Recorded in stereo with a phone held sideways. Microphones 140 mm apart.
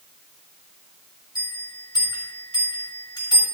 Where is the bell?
30° left (ahead or behind), 7.5 m.